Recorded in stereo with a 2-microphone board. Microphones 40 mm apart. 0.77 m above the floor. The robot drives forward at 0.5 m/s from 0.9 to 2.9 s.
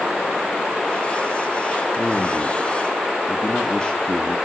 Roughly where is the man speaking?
Centre.